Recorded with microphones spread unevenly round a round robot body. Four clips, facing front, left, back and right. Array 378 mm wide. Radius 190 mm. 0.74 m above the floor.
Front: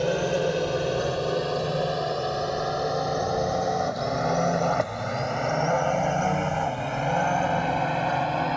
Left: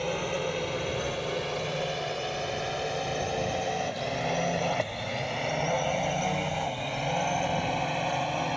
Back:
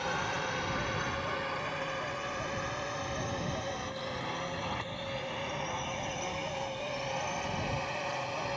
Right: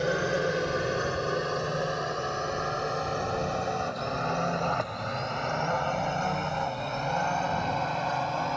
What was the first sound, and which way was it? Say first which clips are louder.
A drone: right 3 dB, front 10 dB; 15° right.